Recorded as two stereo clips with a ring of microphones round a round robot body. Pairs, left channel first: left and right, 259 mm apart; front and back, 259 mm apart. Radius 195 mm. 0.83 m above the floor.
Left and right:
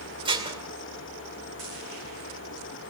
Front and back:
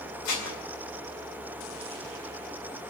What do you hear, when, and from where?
0.2 s dishes clattering: 20° right, 2.5 m